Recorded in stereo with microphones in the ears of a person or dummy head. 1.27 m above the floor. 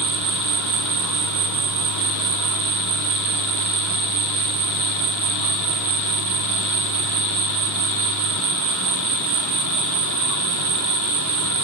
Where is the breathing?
I don't hear breathing.